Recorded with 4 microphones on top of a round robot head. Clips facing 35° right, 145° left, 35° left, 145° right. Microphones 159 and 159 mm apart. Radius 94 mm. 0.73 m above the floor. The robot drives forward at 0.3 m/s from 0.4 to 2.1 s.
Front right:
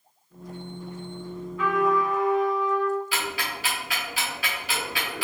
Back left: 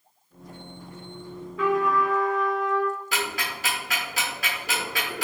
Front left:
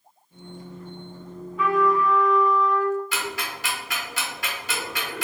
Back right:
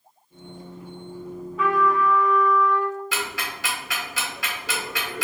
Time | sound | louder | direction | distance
1.6 | a trumpet | even, front left 1 dB | 130° left | 1.3 m
3.1 | ticking | back left 1 dB, even | 165° right | 1.1 m